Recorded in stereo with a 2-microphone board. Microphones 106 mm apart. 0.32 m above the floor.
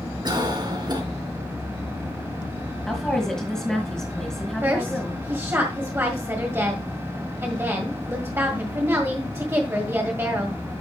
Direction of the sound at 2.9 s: 5° left (ahead or behind).